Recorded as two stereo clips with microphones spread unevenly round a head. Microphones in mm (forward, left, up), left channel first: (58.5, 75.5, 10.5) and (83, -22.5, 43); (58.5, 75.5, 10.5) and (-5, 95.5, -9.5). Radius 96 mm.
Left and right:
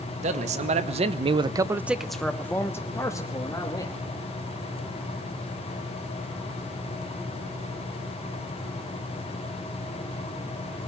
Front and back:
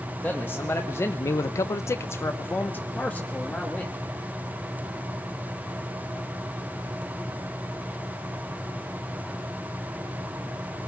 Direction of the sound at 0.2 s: 100° right.